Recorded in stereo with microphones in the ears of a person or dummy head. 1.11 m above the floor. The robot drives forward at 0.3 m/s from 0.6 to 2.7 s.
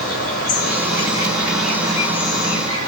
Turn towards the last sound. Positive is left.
turn(degrees=35)  # may be behind; listen again after turning